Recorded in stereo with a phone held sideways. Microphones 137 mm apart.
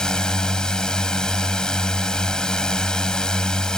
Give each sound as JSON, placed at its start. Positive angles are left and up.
{"t": 0.0, "sound": "a drone", "side_deg": 5}